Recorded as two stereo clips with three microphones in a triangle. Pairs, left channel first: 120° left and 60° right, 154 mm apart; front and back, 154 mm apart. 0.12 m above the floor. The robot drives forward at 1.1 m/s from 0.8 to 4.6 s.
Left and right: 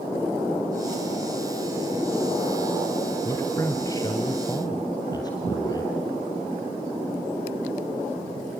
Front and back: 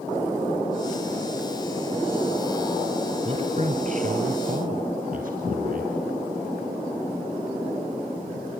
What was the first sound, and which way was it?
A man speaking, straight behind.